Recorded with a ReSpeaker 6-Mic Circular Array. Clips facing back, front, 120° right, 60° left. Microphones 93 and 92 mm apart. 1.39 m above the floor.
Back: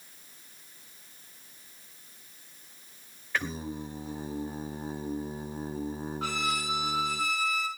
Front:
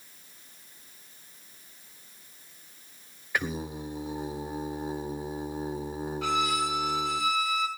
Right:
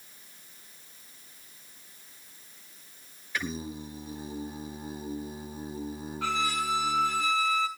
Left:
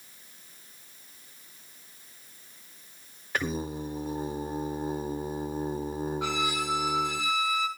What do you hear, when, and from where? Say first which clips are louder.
3.3 s singing: front 2 dB, left 4 dB; 75° left, 1.9 m
6.2 s a violin: front 5 dB, right 5 dB; 130° left, 8.5 m